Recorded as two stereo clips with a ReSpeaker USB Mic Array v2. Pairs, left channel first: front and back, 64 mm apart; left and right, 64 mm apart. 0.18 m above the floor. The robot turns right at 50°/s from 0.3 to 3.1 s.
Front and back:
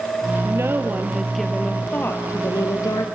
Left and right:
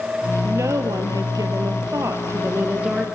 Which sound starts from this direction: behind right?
A woman speaking, at 0.4 s.